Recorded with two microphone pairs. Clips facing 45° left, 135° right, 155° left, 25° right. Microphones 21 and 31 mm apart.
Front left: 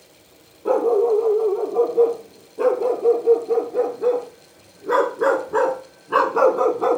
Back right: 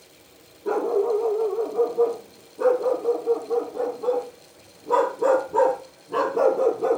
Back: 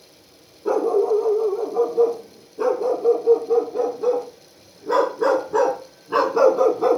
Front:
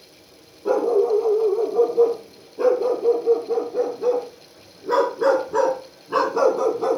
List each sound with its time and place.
0.7 s a dog barking: 50° left, 4.5 m; by 7.0 s 80° left, 1.2 m